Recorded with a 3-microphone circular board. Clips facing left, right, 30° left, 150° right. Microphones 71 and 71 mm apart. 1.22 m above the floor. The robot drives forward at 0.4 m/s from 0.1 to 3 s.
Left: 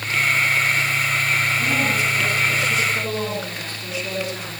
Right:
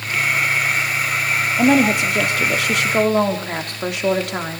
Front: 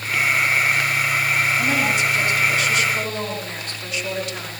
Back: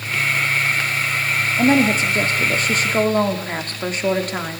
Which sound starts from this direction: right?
A woman speaking, at 1.6 s.